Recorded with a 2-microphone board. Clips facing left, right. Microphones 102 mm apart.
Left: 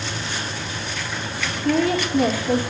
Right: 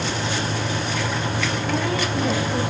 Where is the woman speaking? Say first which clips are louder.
Left 8 dB; 75° left (ahead or behind), 4 m.